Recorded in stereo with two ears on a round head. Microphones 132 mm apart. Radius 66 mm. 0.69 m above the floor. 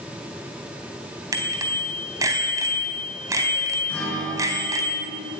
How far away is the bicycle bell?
About 3.5 m.